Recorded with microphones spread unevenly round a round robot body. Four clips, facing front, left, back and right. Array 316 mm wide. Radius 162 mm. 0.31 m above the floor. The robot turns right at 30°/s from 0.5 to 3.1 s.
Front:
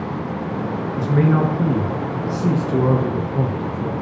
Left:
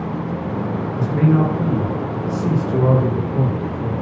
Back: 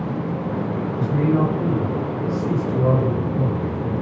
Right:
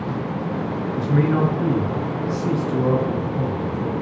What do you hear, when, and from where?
1.0 s a man speaking: 25° right, 4 m; by 3.9 s 40° left, 4 m